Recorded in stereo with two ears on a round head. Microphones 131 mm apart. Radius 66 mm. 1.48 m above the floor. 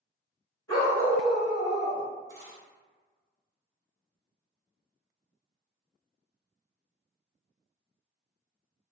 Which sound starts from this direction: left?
A dog barking, at 0.7 s.